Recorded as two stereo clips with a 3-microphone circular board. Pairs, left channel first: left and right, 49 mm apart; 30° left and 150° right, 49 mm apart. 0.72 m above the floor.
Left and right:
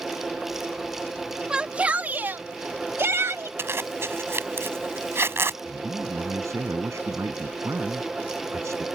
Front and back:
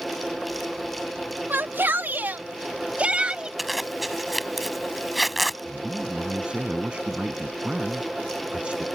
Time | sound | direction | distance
1.5 | a shout | 155° right | ?
3.6 | a zipper | 60° right | ?
5.6 | a man speaking | 80° right | ?